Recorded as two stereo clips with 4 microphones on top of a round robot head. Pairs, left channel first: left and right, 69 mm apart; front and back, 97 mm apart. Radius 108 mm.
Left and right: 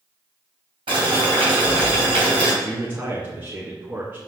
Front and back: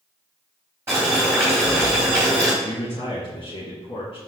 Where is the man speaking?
40° right, 2 m.